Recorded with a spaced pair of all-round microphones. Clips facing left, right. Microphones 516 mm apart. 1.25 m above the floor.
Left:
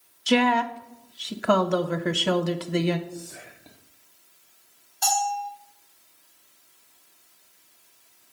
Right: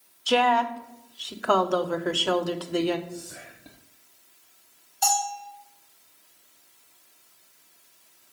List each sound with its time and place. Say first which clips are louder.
0.3 s a woman speaking: left 2 dB; 45° left (ahead or behind), 0.5 m
3.1 s whispering: even; 35° right (ahead or behind), 0.8 m
5.0 s a bell: left 1 dB; 55° left (ahead or behind), 2.5 m